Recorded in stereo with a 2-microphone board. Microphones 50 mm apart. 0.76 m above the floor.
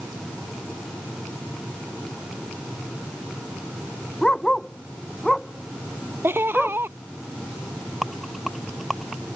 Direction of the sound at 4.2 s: 15° left (ahead or behind).